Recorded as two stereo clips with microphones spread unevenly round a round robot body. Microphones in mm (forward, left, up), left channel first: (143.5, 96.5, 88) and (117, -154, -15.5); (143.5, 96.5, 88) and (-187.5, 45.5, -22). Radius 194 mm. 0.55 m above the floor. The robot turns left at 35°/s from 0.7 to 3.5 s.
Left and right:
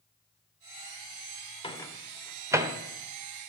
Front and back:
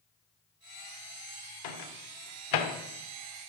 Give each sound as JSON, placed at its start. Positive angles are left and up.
{"t": 1.6, "sound": "a microwave", "azimuth_deg": 5, "distance_m": 1.5}